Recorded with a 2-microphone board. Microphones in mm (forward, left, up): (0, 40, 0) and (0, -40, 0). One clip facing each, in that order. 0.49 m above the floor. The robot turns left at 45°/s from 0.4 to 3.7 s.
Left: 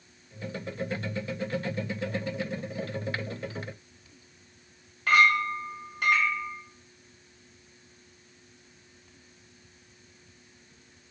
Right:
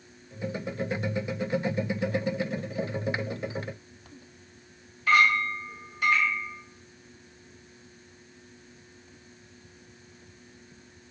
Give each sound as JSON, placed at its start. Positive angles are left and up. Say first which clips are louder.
{"t": 5.1, "sound": "a clink", "louder": "even", "side_deg": 60, "distance_m": 1.3}